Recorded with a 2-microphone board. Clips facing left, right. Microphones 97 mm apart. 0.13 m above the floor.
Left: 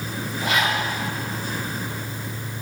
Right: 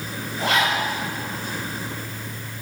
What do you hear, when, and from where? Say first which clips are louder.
0.4 s a zipper: right 2 dB; 70° right (ahead or behind), 5 m